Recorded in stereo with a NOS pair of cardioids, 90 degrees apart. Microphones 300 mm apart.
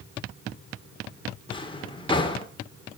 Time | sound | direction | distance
1.5 | a drawer | 15° left | 1.8 m